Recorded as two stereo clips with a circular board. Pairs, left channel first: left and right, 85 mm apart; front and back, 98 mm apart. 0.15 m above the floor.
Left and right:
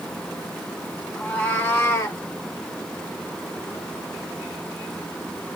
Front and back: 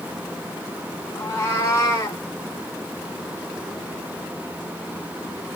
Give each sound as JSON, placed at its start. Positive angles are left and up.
{"t": 1.1, "sound": "a cat meowing", "azimuth_deg": 30, "distance_m": 0.8}